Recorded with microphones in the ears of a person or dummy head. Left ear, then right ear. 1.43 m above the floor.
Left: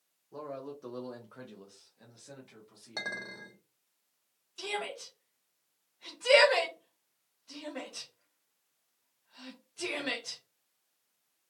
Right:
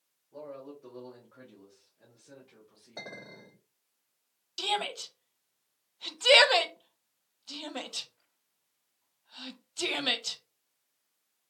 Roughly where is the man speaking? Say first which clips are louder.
Left 2 dB; left.